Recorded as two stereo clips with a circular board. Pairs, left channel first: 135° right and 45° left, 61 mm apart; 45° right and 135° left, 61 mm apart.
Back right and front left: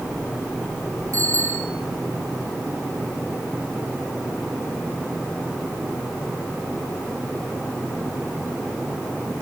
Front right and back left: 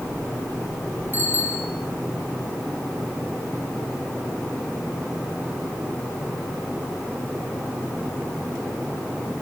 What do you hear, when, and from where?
1.1 s a bicycle bell: 80° left, 8 m